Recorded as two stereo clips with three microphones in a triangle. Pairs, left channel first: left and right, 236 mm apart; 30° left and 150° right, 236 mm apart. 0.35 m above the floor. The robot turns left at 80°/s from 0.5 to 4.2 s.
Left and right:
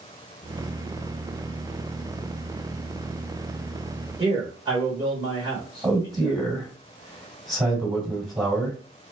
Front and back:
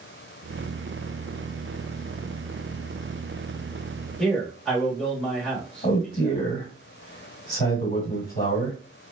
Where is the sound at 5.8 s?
20° right, 1.7 m.